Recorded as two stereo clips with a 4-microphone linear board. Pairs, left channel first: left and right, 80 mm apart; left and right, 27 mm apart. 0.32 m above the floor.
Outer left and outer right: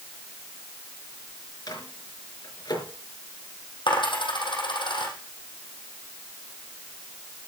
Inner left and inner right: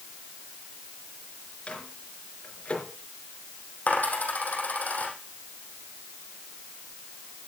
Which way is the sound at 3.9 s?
90° left.